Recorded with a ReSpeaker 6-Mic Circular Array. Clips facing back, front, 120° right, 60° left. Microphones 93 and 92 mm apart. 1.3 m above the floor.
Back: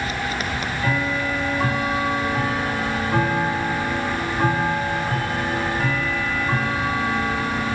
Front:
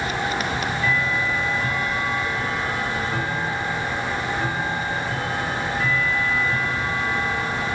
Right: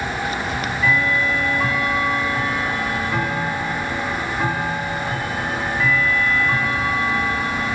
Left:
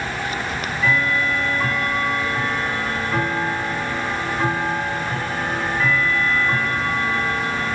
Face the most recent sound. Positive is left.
turn(degrees=150)